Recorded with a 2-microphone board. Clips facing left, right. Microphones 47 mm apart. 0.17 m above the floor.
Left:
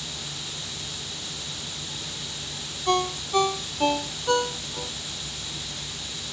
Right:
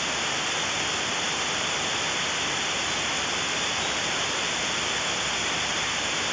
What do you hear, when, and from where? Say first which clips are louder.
0.0 s running water: right 10 dB; 50° right (ahead or behind)
2.9 s a ringtone: left 3 dB; 70° left (ahead or behind)